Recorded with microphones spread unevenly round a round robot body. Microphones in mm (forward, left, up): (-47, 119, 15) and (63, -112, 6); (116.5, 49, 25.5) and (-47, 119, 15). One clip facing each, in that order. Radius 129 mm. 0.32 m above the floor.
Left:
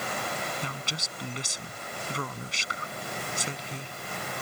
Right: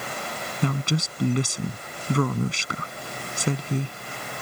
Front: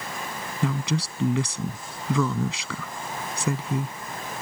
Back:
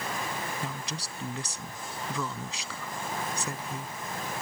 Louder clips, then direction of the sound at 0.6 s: Right 13 dB, front 11 dB; 30° right.